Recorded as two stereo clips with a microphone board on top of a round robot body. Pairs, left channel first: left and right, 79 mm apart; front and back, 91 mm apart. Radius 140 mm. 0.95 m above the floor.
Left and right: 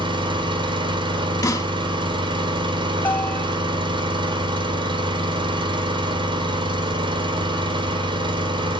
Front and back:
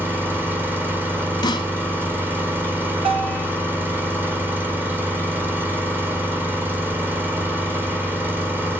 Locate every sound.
0.0 s an engine running: 110° right, 3 m
1.4 s a snare drum: 45° left, 1.8 m
3.0 s a bell: 155° left, 2.5 m